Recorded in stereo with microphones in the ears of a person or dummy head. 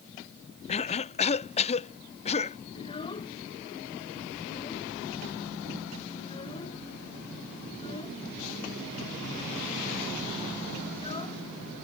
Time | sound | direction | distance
0.7 | a cough | 30° left (ahead or behind) | ?
2.8 | a child speaking | 25° left (ahead or behind) | ?